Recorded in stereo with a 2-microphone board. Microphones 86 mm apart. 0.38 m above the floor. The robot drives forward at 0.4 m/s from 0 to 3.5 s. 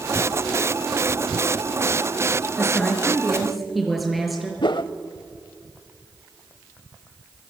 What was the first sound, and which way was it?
A woman speaking, centre (ahead or behind).